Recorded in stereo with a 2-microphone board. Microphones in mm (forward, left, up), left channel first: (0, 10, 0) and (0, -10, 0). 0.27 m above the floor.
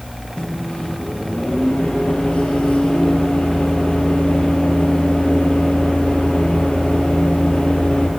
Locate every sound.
0.4 s a microwave: 75° left (ahead or behind), 5.5 m